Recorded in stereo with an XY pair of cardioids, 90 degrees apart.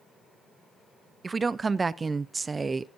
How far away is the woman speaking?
About 0.6 m.